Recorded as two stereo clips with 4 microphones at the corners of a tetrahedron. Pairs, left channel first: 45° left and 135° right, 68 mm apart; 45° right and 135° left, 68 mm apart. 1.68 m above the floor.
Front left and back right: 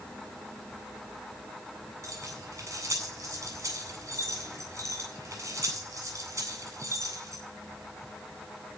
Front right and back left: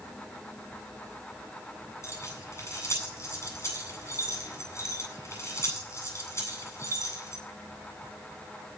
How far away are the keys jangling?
About 9 m.